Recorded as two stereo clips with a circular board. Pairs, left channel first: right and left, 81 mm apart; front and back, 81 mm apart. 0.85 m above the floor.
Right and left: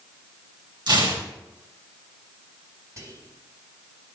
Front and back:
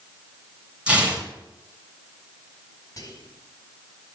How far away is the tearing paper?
About 4 m.